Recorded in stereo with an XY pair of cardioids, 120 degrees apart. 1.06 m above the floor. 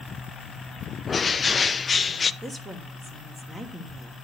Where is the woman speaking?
15° right, 2 m.